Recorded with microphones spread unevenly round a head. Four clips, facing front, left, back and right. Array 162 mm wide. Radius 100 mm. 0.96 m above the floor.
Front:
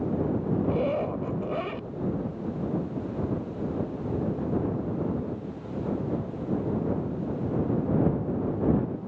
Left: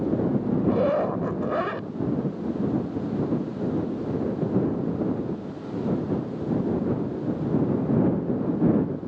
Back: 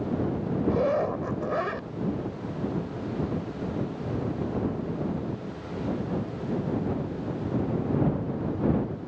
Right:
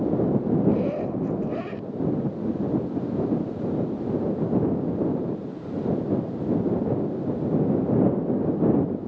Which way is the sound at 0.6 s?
105° left.